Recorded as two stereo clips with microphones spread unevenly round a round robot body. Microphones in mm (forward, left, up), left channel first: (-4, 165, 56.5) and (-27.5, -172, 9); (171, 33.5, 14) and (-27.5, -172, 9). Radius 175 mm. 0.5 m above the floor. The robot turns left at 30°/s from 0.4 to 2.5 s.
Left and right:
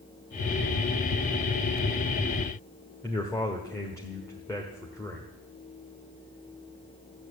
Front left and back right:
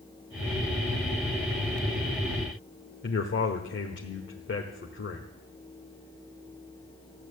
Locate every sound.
3.0 s a man speaking: straight ahead, 1.5 m